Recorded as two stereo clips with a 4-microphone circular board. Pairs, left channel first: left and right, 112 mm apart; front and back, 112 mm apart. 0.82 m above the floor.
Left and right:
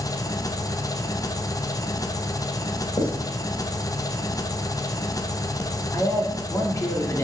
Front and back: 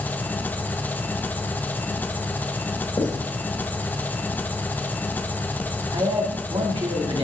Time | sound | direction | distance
0.0 | an engine running | 65° left | 0.7 m
3.0 | writing | 45° left | 2.5 m
5.9 | a man speaking | 150° left | 2.5 m